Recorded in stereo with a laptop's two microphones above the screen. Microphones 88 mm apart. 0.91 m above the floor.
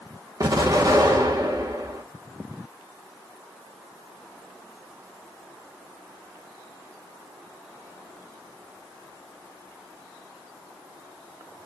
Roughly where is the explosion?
Right.